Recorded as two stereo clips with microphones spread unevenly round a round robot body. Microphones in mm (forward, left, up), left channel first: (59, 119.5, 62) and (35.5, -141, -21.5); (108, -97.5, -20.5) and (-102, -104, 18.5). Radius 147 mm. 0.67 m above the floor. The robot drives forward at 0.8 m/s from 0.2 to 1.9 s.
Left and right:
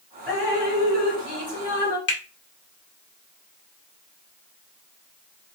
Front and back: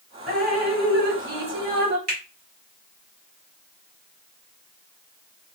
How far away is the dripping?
About 2.0 m.